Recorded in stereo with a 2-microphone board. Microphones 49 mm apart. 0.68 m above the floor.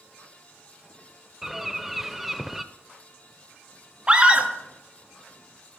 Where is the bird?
5° right (ahead or behind), 0.5 m.